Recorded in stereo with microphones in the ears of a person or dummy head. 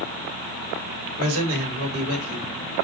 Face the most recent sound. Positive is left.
turn(degrees=-85)